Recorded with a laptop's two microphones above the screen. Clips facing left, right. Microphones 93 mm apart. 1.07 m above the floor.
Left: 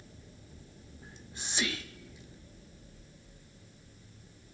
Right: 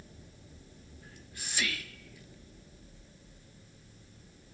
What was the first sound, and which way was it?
Whispering, 20° left (ahead or behind).